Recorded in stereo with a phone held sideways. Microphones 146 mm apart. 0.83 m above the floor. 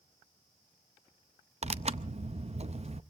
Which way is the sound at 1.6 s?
50° right (ahead or behind).